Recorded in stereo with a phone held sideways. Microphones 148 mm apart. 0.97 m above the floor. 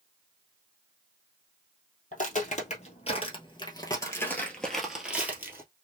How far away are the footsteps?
About 1.5 m.